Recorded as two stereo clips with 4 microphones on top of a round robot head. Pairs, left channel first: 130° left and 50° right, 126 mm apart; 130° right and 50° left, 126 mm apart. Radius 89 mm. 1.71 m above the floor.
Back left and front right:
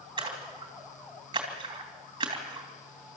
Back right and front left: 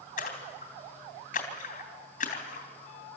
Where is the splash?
110° right, 3 m.